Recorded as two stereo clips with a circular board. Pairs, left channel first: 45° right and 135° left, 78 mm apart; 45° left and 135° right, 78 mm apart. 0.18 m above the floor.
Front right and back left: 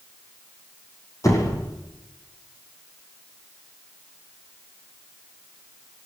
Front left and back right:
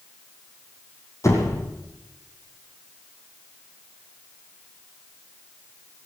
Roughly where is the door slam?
Ahead.